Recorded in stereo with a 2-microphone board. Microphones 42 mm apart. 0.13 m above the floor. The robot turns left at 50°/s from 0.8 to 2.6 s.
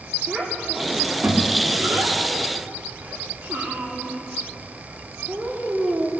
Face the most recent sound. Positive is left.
turn(degrees=-70)  # may be behind; listen again after turning